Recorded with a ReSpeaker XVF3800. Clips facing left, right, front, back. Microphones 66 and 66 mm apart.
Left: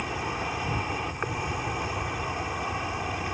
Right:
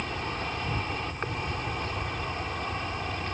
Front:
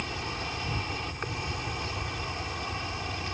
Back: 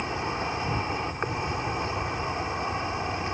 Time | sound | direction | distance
0.0 | an insect | 155° left | ?